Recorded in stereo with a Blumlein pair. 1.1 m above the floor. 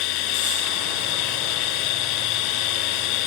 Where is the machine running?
40° left.